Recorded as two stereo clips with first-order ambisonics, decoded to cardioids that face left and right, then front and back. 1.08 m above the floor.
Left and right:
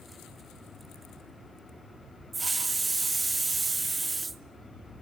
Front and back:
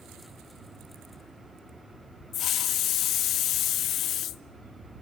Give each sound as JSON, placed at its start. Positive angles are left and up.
{"t": 2.3, "sound": "a hiss", "azimuth_deg": -15, "distance_m": 0.6}